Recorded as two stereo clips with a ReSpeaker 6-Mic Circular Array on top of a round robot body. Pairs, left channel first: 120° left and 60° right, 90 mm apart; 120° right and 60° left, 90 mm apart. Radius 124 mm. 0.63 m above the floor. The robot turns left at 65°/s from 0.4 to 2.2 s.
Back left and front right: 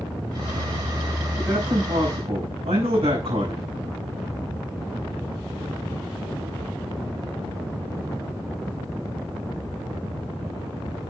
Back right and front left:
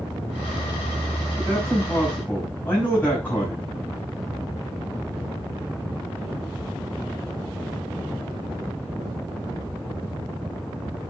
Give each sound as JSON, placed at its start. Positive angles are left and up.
{"t": 1.4, "sound": "a man speaking", "azimuth_deg": 5, "distance_m": 6.5}